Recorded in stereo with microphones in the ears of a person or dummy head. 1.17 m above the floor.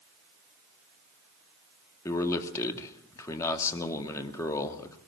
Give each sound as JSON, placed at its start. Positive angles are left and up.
{"t": 2.0, "sound": "a man speaking", "side_deg": 20, "distance_m": 1.9}